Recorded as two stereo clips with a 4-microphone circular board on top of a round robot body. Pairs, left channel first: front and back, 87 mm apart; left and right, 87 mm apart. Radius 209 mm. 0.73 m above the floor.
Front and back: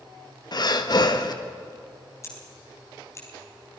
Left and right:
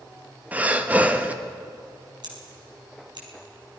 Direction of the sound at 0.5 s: 20° right.